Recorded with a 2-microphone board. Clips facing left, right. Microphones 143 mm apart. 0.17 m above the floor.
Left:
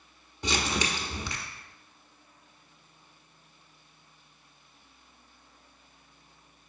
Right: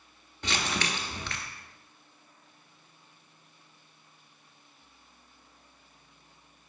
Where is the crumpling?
15° left (ahead or behind), 1.2 m.